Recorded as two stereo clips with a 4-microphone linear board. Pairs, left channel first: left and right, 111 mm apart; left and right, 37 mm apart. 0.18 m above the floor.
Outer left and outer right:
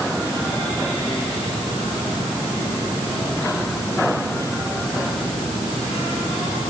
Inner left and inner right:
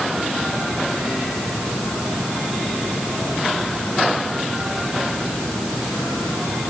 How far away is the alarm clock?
I don't hear an alarm clock.